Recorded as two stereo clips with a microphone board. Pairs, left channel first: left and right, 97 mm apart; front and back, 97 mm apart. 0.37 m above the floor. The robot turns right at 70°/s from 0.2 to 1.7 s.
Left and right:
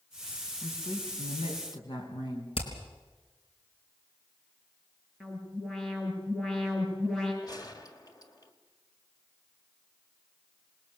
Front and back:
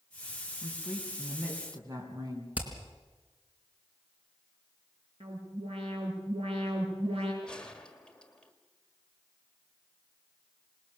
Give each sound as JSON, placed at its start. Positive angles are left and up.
{"t": 0.6, "sound": "a woman speaking", "azimuth_deg": 50, "distance_m": 4.0}
{"t": 2.5, "sound": "hammering", "azimuth_deg": 105, "distance_m": 3.5}
{"t": 5.2, "sound": "an alarm", "azimuth_deg": 175, "distance_m": 8.5}
{"t": 7.4, "sound": "a gunshot", "azimuth_deg": 75, "distance_m": 1.8}